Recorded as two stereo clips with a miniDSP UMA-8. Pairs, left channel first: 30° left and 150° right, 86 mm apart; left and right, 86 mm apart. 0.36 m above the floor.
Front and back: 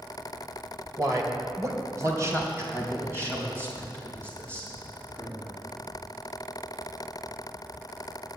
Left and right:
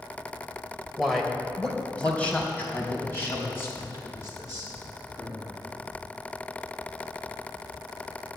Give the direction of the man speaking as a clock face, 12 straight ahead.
6 o'clock.